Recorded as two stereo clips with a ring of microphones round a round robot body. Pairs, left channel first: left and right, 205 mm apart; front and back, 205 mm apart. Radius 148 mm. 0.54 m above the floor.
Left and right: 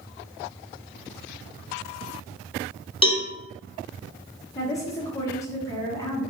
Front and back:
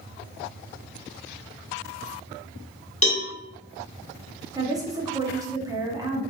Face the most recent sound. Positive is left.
turn(degrees=140)